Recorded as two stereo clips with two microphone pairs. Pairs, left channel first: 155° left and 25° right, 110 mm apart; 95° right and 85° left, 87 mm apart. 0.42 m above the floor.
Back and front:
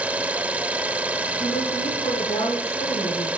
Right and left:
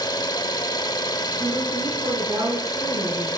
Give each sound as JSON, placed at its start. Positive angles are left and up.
{"t": 0.0, "sound": "an engine running", "azimuth_deg": -100, "distance_m": 0.9}
{"t": 1.4, "sound": "a woman speaking", "azimuth_deg": 130, "distance_m": 4.5}